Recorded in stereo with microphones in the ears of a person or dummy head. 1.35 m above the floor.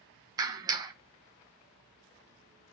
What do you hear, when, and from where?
0.4 s a clap: 20° right (ahead or behind), 1.0 m